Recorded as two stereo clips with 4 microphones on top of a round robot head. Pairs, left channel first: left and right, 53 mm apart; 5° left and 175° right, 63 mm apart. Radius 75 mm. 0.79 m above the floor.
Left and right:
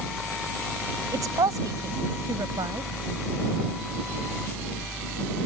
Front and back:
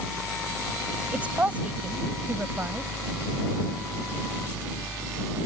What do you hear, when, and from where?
1.1 s a woman speaking: 105° right